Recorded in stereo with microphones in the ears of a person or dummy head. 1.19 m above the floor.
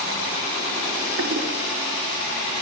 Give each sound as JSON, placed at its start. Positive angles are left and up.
{"t": 1.2, "sound": "a toilet flushing", "side_deg": -80, "distance_m": 3.5}